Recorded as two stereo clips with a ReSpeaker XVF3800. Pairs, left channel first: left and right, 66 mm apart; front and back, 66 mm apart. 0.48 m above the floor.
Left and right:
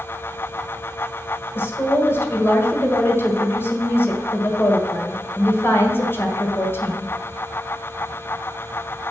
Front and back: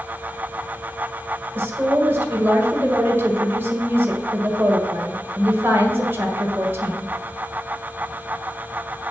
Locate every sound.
1.6 s a woman speaking: 130° left, 1.6 m